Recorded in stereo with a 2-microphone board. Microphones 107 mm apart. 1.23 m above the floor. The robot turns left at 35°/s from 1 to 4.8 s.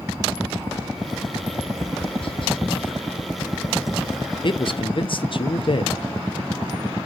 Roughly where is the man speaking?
Left.